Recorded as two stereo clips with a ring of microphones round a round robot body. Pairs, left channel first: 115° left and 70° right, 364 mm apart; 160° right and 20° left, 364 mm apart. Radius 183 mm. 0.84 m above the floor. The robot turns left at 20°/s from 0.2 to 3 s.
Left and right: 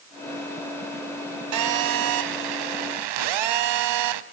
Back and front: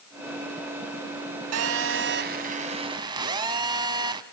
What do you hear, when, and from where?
1.5 s a phone buzzing: 25° right, 1.4 m; by 4.2 s 55° right, 1.4 m